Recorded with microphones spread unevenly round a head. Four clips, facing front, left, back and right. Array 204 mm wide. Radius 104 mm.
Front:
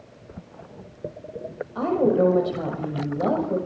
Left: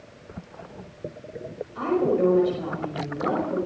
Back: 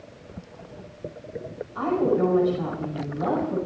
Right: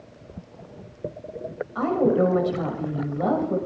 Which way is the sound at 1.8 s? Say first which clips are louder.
Right 2 dB, front 2 dB; 30° right.